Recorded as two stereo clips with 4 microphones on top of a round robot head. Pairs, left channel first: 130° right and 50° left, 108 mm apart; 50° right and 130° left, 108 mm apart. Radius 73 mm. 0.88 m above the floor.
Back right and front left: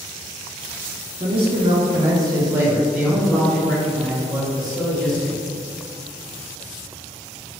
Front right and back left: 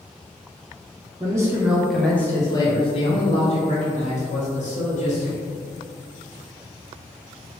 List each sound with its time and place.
1.2 s a man speaking: 75° left, 0.9 m; by 5.4 s 65° right, 1.9 m